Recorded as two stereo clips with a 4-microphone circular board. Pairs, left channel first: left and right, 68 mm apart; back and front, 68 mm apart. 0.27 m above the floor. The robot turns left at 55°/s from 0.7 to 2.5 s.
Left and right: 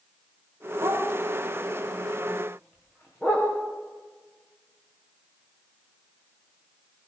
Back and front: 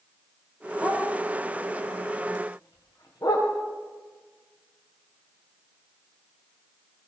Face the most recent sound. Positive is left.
turn(degrees=160)